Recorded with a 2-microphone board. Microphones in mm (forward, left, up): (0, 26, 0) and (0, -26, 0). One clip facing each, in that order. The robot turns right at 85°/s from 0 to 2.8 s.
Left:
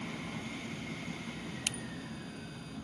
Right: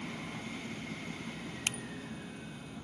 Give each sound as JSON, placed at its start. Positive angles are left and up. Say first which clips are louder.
{"t": 1.7, "sound": "a finger snap", "louder": "right 3 dB", "side_deg": -25}